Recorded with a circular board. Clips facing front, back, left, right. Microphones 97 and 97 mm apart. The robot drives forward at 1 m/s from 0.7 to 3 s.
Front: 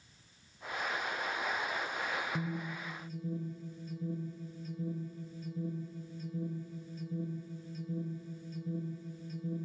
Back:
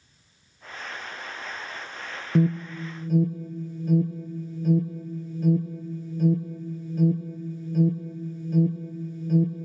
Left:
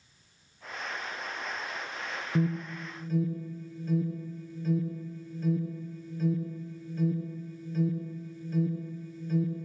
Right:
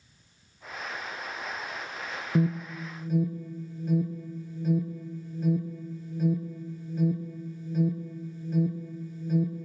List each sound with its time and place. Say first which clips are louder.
2.4 s an alarm: back 14 dB, right 3 dB; 160° right, 1.8 m; by 9.7 s 165° right, 2.5 m